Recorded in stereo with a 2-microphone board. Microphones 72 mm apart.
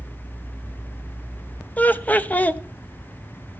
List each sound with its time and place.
1.8 s laughter: 20° left (ahead or behind), 0.9 m